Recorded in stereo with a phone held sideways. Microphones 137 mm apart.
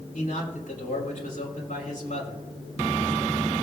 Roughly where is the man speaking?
Left.